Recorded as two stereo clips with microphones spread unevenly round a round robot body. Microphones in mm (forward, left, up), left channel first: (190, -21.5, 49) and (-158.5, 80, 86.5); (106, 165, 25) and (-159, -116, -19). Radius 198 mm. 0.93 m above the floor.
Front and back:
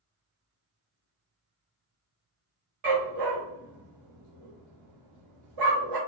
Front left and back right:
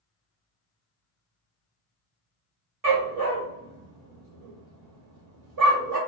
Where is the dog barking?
170° right, 1.3 m.